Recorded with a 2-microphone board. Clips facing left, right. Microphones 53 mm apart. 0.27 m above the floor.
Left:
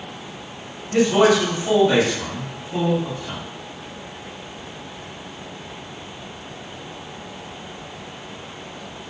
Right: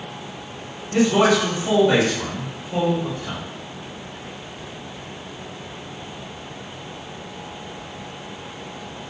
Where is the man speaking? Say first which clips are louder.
Left 1 dB; 20° left (ahead or behind), 1.3 m; by 3.4 s 35° right (ahead or behind), 1.6 m.